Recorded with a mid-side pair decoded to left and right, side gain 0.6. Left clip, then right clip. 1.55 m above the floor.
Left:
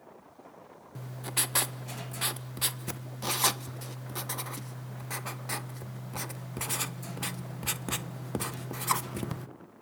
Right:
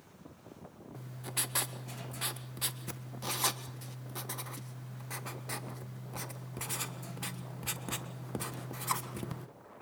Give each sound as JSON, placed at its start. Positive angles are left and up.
{"t": 0.9, "sound": "writing", "azimuth_deg": 30, "distance_m": 1.4}